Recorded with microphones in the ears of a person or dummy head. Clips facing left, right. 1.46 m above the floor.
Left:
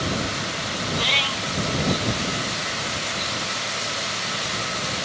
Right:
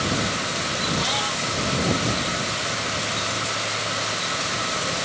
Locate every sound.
0.9 s a cat meowing: 35° left (ahead or behind)